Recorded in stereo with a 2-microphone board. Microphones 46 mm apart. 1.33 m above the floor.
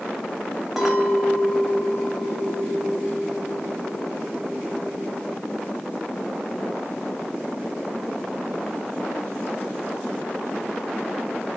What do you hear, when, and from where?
0.8 s a clink: 5° right (ahead or behind), 1.9 m